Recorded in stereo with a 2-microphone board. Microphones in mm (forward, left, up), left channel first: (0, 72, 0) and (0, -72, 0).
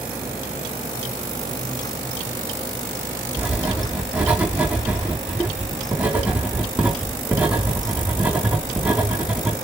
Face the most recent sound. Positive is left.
turn(degrees=-10)  # may be behind; listen again after turning